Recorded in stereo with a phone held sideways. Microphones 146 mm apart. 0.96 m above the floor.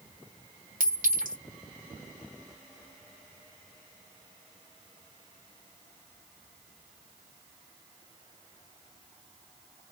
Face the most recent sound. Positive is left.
turn(degrees=-75)  # may be behind; listen again after turning